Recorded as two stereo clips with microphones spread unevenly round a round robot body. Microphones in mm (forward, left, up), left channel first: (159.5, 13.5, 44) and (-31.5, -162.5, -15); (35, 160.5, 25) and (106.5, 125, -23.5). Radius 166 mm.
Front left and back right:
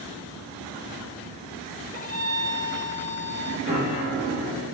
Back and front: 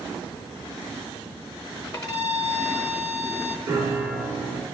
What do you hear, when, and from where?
1.9 s a violin: 140° left, 0.8 m
3.7 s a piano: 80° right, 2.5 m